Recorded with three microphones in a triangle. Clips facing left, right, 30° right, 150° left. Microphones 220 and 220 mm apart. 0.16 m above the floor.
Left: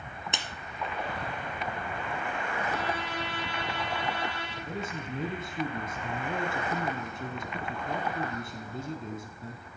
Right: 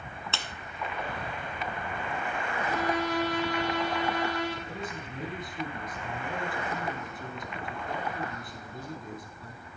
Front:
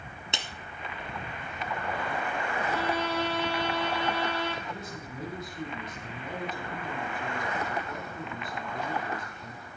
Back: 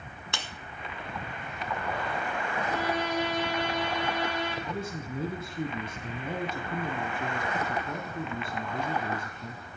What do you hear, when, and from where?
0.3 s a clap: 25° left, 1.0 m
2.6 s a violin: 135° right, 2.5 m
4.7 s a man speaking: 120° left, 1.2 m